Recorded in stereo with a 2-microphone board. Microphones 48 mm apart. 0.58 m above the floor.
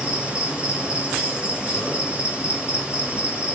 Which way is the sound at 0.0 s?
25° right (ahead or behind).